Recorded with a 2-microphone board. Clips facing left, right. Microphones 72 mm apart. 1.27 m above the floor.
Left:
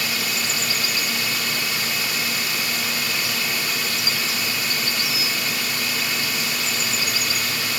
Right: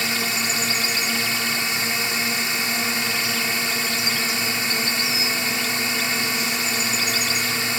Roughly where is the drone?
Right.